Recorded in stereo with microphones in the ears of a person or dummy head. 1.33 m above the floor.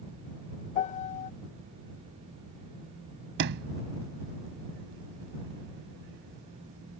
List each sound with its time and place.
0.8 s a piano: 30° left (ahead or behind)
3.4 s a sliding door: 55° right (ahead or behind)